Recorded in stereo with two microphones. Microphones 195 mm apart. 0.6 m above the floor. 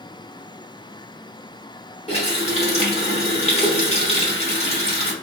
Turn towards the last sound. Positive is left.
turn(degrees=30)  # may be behind; listen again after turning